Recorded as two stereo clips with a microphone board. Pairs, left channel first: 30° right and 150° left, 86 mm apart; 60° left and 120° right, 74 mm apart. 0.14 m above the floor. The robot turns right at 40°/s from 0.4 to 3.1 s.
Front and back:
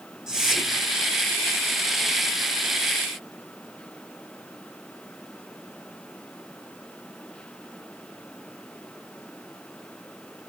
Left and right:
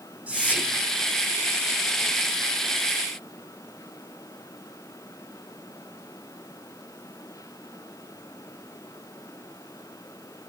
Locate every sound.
0.3 s whispering: 140° right, 1.7 m; by 0.8 s 120° right, 1.7 m